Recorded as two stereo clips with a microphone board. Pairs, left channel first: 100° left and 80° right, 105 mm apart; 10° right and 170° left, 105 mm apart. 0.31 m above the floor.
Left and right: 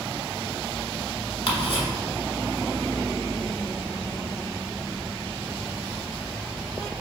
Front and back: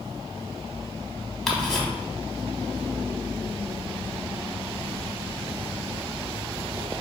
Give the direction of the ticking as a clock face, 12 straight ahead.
10 o'clock.